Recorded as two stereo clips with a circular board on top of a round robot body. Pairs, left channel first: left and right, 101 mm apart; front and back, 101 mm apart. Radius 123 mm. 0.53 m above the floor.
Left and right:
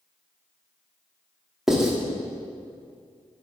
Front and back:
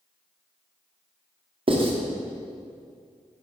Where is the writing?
175° right, 1.3 m.